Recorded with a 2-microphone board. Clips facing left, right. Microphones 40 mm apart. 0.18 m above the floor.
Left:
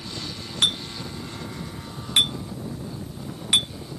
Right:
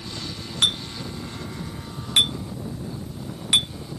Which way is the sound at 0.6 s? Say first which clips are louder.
Right 1 dB; 10° right (ahead or behind).